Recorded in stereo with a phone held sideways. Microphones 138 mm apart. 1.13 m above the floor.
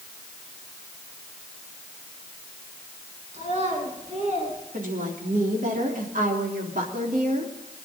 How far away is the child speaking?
About 9.5 m.